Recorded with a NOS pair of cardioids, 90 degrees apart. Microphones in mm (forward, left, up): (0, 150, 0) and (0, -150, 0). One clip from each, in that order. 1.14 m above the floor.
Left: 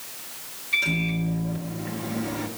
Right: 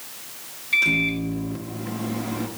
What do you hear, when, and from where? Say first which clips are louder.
0.7 s a microwave: right 5 dB; 25° right, 1.6 m